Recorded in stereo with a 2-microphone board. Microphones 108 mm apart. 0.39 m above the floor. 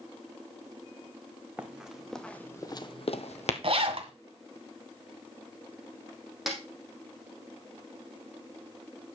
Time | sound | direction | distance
1.6 | running footsteps | 10° right (ahead or behind) | 1.7 m
3.6 | a zipper | 55° right (ahead or behind) | 2.0 m
6.5 | a snare drum | 5° right (ahead or behind) | 4 m